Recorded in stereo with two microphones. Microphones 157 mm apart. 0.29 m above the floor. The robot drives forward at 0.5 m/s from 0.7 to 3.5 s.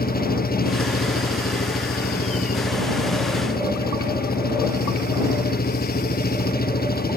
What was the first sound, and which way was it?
An engine running, 70° left (ahead or behind).